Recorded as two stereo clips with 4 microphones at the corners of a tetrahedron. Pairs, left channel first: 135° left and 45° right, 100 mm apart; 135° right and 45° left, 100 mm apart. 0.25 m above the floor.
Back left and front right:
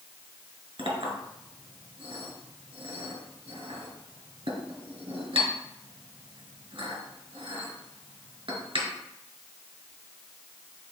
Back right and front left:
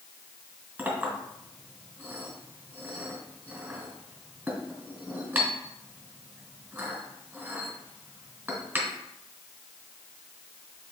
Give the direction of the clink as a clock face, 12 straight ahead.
1 o'clock.